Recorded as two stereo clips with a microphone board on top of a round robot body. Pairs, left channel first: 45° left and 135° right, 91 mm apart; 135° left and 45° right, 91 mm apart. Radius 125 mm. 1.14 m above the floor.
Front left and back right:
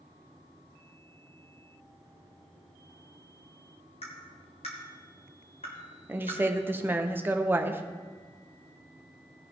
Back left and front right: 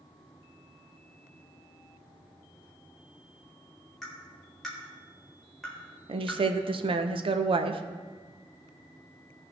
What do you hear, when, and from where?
4.0 s tapping: 50° left, 1.0 m
6.1 s a woman speaking: 65° right, 0.8 m